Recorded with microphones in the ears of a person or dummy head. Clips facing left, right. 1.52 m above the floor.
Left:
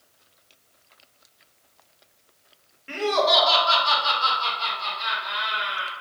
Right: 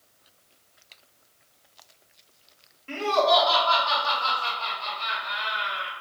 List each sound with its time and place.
2.9 s laughter: 10° left (ahead or behind), 0.9 m; by 5.9 s 80° left, 1.8 m